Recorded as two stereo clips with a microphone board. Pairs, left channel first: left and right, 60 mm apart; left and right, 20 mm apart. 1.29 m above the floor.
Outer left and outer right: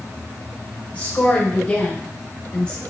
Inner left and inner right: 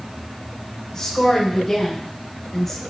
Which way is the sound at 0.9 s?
25° left (ahead or behind).